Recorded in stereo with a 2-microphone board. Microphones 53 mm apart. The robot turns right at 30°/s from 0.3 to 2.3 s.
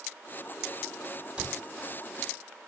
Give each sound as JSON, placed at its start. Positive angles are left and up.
{"t": 1.4, "sound": "a cupboard door", "side_deg": -20, "distance_m": 1.5}